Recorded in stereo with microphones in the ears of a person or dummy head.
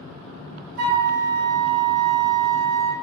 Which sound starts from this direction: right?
A flute, at 0.8 s.